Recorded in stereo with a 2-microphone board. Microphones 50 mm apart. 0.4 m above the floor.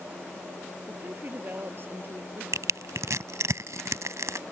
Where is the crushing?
85° right.